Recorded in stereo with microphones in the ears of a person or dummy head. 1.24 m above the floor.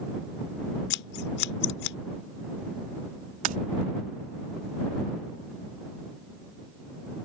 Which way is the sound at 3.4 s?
45° right (ahead or behind).